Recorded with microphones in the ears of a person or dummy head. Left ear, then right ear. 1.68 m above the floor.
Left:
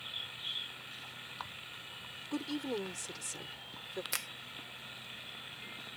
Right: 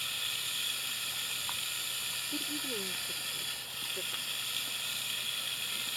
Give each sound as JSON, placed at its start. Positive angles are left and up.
{"t": 0.0, "sound": "running water", "side_deg": -85}
{"t": 2.3, "sound": "a woman speaking", "side_deg": 60}
{"t": 4.1, "sound": "a finger snap", "side_deg": 75}